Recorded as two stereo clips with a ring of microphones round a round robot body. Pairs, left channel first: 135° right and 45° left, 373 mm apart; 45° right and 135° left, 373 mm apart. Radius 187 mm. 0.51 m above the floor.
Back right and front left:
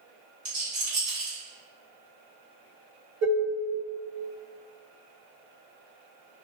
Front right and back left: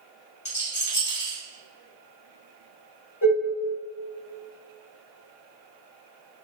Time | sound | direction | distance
0.5 | a rattle | 20° left | 1.7 m
3.2 | dishes clattering | 5° right | 1.5 m